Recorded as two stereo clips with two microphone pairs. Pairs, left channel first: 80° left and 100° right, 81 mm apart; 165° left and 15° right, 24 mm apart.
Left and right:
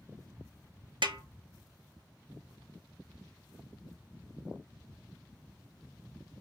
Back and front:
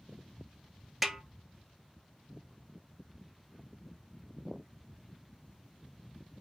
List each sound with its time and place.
1.0 s a snare drum: 95° right, 0.7 m